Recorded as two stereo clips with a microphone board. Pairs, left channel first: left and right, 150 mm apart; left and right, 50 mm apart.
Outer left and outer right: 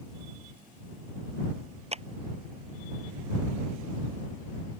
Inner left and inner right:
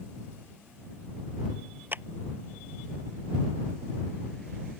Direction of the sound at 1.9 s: 45° right (ahead or behind).